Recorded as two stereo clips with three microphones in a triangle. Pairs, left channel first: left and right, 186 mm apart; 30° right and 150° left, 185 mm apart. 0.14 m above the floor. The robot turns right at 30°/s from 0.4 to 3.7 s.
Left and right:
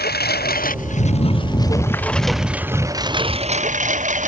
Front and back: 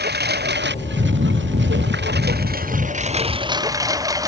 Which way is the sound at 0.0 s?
125° left.